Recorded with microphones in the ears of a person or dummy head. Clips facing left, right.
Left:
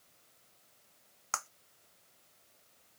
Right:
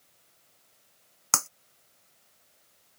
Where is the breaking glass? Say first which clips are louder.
Right 7 dB; 60° right (ahead or behind).